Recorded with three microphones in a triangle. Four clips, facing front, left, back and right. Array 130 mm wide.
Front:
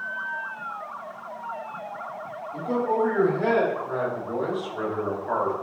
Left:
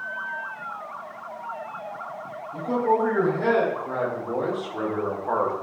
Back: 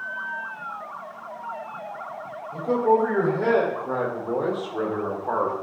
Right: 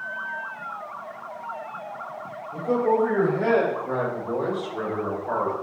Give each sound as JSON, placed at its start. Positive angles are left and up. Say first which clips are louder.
{"t": 2.5, "sound": "a man speaking", "louder": "right 1 dB, back 4 dB", "azimuth_deg": -160, "distance_m": 3.5}